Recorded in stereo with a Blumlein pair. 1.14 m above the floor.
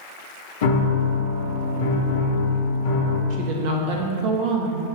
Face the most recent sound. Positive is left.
turn(degrees=-45)